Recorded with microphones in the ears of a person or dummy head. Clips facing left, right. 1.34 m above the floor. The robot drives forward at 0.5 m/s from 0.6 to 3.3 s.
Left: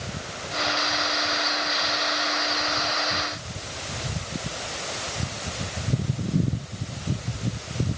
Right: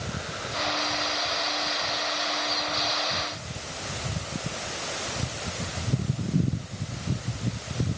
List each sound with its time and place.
Only background noise.